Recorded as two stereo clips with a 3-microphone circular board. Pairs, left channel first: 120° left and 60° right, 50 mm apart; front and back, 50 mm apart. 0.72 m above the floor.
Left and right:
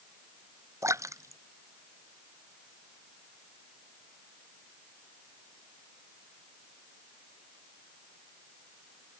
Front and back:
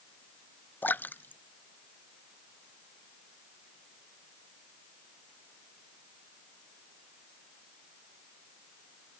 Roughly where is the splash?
Ahead right.